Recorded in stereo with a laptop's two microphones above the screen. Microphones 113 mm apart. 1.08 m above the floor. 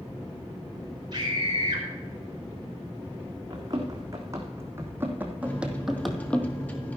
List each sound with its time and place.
1.1 s a scream: 40° right (ahead or behind), 4 m
3.5 s running footsteps: 30° right (ahead or behind), 4 m; by 6.4 s 15° left (ahead or behind), 1.7 m
5.4 s a microwave: 15° left (ahead or behind), 1.9 m